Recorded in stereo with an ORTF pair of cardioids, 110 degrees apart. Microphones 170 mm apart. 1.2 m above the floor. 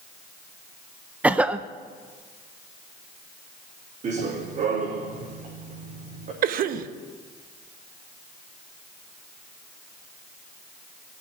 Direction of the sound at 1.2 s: 10° right.